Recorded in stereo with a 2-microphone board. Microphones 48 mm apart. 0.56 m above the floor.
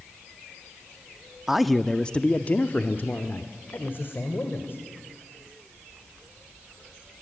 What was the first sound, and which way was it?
A man speaking, 10° right (ahead or behind).